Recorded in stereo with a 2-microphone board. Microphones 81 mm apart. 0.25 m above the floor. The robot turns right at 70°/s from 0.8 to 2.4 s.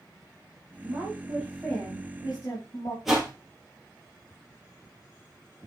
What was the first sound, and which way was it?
A woman speaking, 60° right.